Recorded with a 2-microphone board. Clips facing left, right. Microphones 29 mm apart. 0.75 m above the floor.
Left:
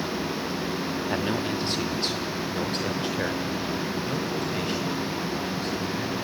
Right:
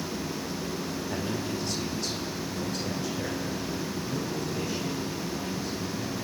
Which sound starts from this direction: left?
A man speaking, at 1.1 s.